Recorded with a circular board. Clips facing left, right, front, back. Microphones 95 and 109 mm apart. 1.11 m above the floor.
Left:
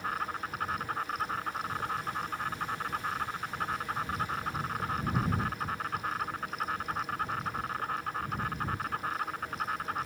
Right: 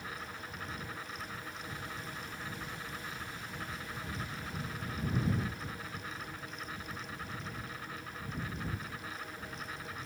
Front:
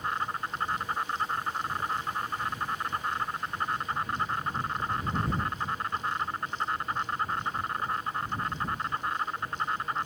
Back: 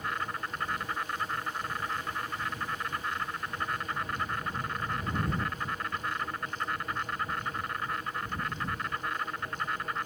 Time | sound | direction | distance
0.0 | an insect | 60° left | ?